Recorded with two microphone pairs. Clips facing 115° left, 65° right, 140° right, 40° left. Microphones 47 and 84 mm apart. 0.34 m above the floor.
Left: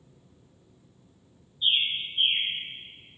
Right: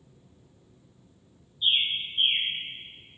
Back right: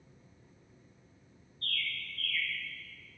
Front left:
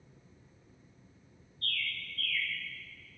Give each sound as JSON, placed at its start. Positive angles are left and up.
{"t": 1.6, "sound": "a bird", "azimuth_deg": 180, "distance_m": 1.3}